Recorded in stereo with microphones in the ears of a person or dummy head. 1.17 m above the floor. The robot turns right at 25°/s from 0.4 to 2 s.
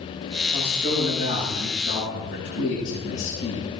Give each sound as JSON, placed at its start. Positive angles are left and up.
{"t": 0.5, "sound": "a man speaking", "azimuth_deg": 35, "distance_m": 7.0}